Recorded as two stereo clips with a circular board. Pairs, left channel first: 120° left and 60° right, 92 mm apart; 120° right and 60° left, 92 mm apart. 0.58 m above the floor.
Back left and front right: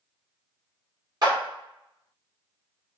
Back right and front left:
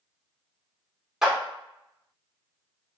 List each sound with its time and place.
1.2 s a clap: 25° right, 1.2 m